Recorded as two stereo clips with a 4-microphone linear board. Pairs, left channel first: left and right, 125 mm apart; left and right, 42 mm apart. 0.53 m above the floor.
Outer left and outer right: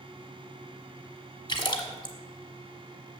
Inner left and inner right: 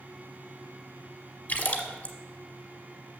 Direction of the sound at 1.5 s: 35° left (ahead or behind).